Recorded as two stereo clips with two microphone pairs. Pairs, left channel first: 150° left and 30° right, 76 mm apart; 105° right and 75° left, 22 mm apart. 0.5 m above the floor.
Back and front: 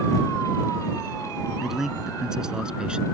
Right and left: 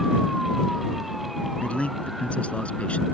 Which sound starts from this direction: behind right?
A man speaking, at 1.6 s.